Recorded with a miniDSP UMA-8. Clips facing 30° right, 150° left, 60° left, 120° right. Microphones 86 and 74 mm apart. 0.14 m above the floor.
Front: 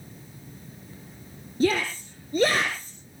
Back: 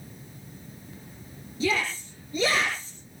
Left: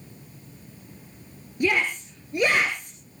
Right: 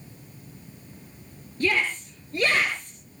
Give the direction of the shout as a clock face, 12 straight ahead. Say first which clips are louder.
Front 4 dB, left 1 dB; 12 o'clock.